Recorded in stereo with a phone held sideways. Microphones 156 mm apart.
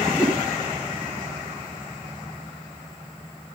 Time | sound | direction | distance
0.1 | a whoosh | 5° right (ahead or behind) | 6 m